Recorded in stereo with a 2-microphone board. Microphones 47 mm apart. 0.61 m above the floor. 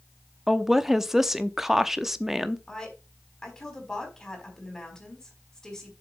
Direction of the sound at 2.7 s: 15° left (ahead or behind).